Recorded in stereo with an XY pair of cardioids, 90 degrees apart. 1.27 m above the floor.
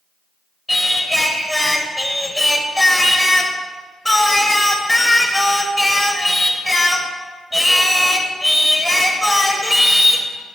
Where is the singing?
15° left, 1.5 m.